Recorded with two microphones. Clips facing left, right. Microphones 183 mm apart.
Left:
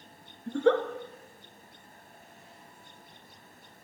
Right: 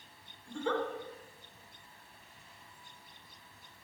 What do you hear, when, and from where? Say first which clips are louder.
0.5 s a giggle: left 10 dB; 70° left (ahead or behind), 0.9 m